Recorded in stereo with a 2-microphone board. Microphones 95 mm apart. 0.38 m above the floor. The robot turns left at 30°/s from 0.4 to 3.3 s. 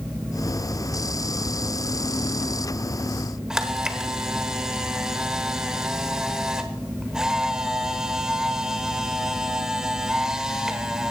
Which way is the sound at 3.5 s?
5° right (ahead or behind).